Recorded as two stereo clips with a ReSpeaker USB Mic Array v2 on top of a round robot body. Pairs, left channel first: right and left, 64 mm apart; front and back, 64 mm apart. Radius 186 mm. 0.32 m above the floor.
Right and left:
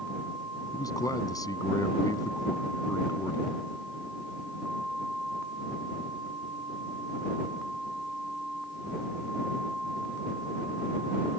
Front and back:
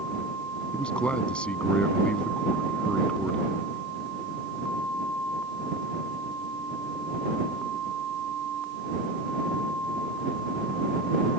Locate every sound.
0.7 s a man speaking: 75° right